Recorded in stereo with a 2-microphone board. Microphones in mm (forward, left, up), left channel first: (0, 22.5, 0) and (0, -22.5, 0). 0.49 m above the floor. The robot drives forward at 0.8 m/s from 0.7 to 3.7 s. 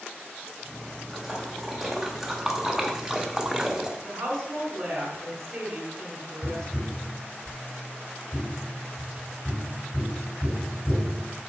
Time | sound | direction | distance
1.1 | a splash | 5° right (ahead or behind) | 2 m
4.0 | a woman speaking | 75° right (ahead or behind) | 4 m
6.4 | tapping | 5° left (ahead or behind) | 4 m